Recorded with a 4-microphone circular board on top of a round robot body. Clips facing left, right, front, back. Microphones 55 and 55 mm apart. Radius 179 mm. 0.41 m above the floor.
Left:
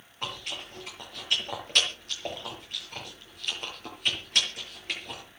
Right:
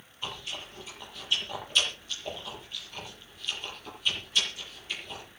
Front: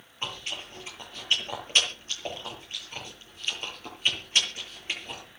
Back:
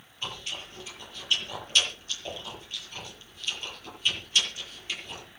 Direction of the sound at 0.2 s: 55° left.